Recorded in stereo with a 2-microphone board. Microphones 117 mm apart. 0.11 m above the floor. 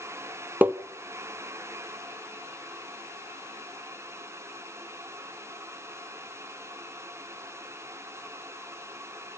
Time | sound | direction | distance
0.6 | tapping | 15° right (ahead or behind) | 0.8 m